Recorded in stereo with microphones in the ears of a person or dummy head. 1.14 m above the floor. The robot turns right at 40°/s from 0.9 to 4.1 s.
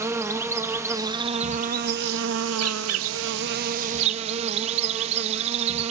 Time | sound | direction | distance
0.0 | an insect | 165° right | 0.8 m